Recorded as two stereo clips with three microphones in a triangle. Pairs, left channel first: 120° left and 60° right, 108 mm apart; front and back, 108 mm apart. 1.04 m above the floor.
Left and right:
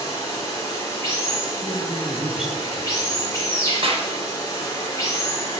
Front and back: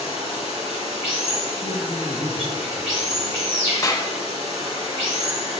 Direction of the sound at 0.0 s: 175° left.